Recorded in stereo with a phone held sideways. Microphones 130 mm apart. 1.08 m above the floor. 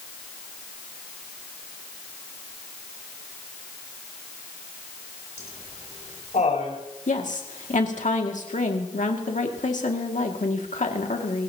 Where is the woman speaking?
75° left (ahead or behind), 2 m.